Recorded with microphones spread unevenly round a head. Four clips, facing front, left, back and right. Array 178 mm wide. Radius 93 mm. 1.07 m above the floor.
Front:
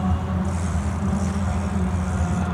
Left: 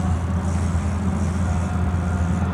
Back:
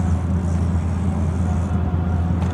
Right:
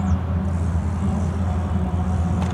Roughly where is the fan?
Behind.